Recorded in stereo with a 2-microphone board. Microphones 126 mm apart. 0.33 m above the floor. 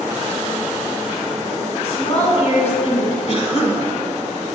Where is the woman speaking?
50° left (ahead or behind), 3 m.